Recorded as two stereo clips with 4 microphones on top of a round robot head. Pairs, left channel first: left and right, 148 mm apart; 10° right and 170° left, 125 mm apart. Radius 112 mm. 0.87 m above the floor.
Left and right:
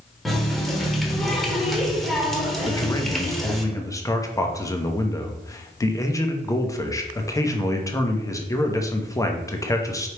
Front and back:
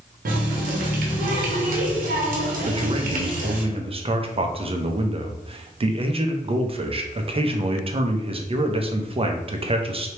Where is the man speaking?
155° left, 0.8 m.